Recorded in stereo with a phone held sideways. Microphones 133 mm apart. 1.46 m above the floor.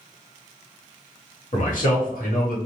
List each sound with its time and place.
1.5 s a man speaking: 65° left (ahead or behind), 1.4 m; by 2.6 s 80° left, 1.3 m